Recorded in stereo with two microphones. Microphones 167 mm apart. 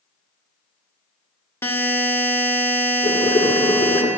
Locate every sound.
1.6 s a buzzer: 15° left (ahead or behind), 1.1 m
3.0 s boiling: 50° left (ahead or behind), 1.8 m